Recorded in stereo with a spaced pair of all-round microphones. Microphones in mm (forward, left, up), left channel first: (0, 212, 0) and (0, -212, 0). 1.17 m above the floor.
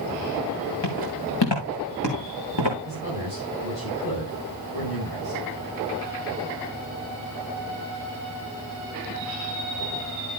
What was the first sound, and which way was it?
Footsteps, 75° left (ahead or behind).